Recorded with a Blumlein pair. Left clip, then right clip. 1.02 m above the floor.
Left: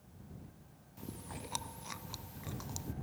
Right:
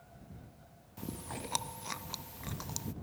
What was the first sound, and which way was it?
Chewing, 15° right.